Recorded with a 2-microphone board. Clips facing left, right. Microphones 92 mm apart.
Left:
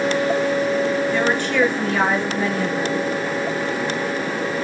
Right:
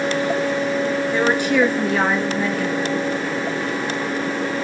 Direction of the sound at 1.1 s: 20° right (ahead or behind).